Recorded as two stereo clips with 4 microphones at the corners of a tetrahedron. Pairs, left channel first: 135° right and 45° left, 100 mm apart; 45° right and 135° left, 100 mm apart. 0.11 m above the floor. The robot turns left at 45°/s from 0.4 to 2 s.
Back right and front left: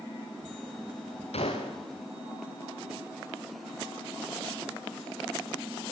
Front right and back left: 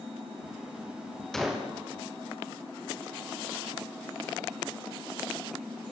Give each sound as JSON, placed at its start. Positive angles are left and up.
{"t": 1.3, "sound": "a gunshot", "azimuth_deg": -130, "distance_m": 5.5}